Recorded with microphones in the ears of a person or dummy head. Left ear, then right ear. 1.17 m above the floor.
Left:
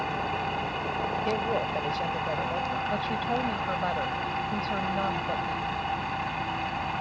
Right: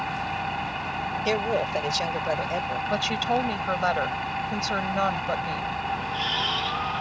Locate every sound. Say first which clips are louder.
0.0 s an engine running: right 1 dB; centre (ahead or behind)
1.2 s a woman speaking: right 6 dB; 60° right (ahead or behind)
2.9 s a woman speaking: right 4 dB; 65° right (ahead or behind)